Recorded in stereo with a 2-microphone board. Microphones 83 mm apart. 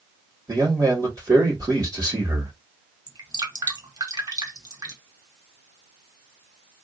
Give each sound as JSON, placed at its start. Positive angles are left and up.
{"t": 0.5, "sound": "a man speaking", "side_deg": -50, "distance_m": 2.0}
{"t": 3.1, "sound": "dripping", "side_deg": -50, "distance_m": 0.9}